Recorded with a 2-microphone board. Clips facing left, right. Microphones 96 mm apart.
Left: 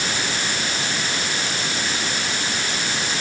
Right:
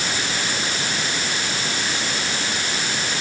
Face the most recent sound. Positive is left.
No sound to turn to.